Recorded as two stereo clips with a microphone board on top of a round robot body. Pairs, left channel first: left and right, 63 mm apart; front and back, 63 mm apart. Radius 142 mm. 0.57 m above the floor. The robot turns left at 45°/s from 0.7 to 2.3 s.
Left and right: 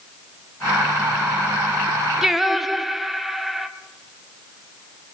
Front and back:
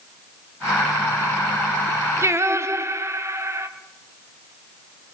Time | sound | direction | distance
2.2 | singing | 170° right | 1.1 m